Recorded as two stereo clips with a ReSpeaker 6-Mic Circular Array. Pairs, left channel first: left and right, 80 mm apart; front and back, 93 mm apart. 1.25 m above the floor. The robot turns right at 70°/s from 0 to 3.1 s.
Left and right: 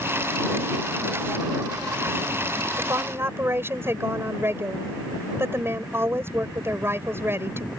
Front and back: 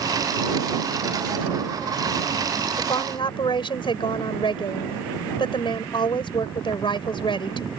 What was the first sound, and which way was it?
A woman speaking, 55° right.